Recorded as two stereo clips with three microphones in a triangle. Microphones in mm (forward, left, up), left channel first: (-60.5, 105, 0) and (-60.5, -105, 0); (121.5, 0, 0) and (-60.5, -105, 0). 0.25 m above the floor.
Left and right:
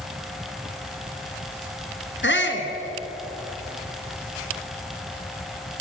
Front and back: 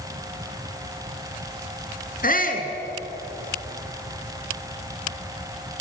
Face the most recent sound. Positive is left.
turn(degrees=75)